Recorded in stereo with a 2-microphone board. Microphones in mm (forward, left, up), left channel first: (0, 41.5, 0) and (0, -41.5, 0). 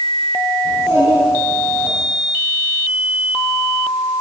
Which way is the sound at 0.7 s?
40° right (ahead or behind).